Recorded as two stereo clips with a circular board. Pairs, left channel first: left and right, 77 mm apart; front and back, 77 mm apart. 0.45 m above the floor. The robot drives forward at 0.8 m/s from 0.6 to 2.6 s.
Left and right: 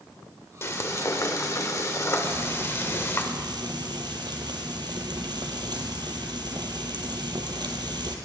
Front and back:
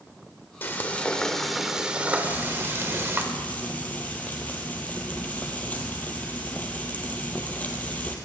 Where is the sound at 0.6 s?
50° left, 1.5 m; by 3.2 s 135° left, 1.6 m.